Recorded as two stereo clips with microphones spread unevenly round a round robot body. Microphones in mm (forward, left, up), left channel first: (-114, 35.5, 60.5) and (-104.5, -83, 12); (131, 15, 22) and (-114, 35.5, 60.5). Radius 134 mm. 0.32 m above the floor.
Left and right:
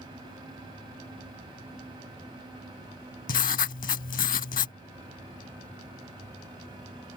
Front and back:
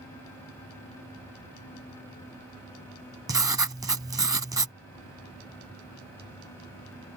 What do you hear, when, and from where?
3.3 s writing: 95° left